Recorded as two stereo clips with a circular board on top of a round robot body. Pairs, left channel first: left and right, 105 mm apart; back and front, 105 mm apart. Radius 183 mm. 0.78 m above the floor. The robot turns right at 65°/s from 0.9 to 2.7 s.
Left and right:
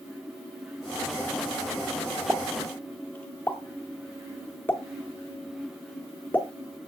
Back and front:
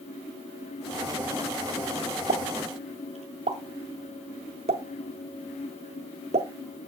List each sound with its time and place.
2.3 s a pop: 10° right, 0.6 m; by 6.5 s 15° left, 0.6 m